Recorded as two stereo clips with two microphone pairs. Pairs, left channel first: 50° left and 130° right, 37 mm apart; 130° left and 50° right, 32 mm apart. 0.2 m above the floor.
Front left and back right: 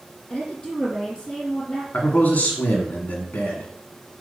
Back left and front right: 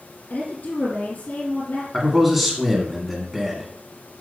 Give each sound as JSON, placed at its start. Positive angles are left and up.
{"t": 0.3, "sound": "a woman speaking", "azimuth_deg": 115, "distance_m": 4.0}
{"t": 1.9, "sound": "a man speaking", "azimuth_deg": 40, "distance_m": 1.6}